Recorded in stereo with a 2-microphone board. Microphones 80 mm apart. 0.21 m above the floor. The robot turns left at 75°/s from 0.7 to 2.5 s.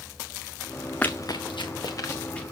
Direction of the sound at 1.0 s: 15° left (ahead or behind).